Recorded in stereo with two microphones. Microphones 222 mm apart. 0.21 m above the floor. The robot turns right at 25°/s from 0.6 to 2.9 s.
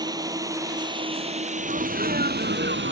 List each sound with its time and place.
0.0 s a drone: 15° right (ahead or behind); by 2.9 s 60° right (ahead or behind)
1.6 s a sneeze: 140° right; by 2.9 s 105° right